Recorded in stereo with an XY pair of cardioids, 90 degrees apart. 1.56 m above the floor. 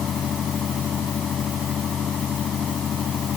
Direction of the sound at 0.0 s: 60° left.